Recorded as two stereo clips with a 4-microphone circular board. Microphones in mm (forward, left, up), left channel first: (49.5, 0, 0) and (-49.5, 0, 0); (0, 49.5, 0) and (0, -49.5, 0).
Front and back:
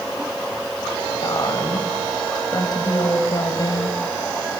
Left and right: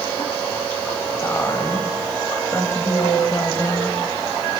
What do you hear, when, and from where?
1.2 s a woman speaking: 35° left, 2 m